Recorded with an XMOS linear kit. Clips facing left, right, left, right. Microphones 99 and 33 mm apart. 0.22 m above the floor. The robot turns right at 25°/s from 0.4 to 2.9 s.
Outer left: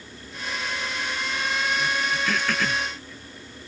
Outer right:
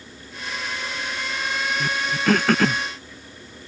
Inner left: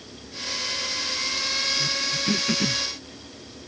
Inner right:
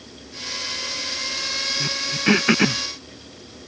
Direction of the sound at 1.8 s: 55° right (ahead or behind).